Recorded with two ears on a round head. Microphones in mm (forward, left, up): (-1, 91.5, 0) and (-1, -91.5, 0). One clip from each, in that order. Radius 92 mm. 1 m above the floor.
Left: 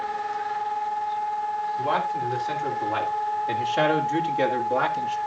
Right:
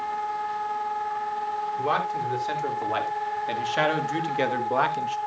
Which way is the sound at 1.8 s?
40° right (ahead or behind).